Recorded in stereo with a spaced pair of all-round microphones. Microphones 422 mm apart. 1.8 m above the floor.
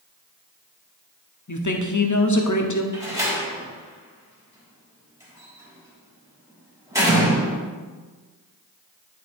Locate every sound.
1.5 s a woman speaking: 45° left (ahead or behind), 0.9 m
2.9 s a door slam: 5° right (ahead or behind), 2.5 m